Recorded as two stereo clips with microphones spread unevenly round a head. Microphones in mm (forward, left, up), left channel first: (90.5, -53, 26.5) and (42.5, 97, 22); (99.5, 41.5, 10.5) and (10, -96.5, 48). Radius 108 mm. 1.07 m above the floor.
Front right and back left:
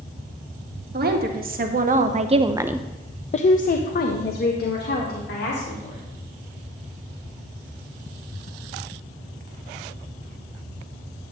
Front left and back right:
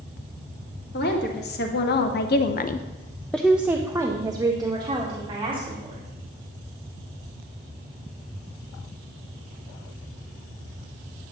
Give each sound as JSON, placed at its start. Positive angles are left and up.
{"t": 0.9, "sound": "a woman speaking", "azimuth_deg": 85, "distance_m": 1.4}